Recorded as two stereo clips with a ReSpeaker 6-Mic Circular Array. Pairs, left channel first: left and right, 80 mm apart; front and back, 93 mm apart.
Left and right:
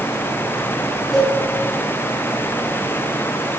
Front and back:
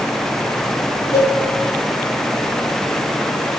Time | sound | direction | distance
1.1 | a cowbell | 5° right | 4.5 m